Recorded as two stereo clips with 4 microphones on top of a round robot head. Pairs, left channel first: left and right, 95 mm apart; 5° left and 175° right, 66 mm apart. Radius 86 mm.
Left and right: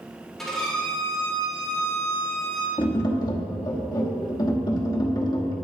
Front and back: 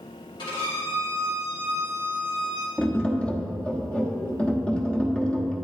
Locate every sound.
0.4 s a violin: straight ahead, 2.5 m
2.8 s tapping: 75° left, 1.2 m